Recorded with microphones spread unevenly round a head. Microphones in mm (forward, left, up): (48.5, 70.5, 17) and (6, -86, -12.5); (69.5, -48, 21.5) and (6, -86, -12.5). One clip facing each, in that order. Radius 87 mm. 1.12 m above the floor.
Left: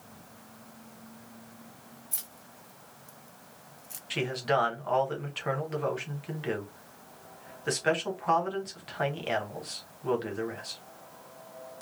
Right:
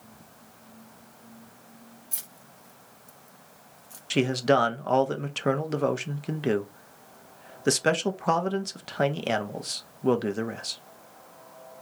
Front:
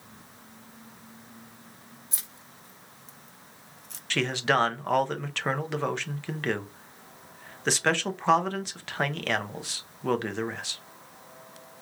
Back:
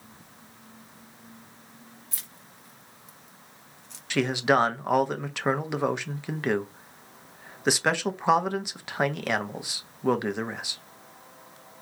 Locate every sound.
2.1 s keys jangling: 35° right, 1.2 m; by 4.0 s 15° left, 0.6 m
4.1 s a man speaking: 80° right, 0.8 m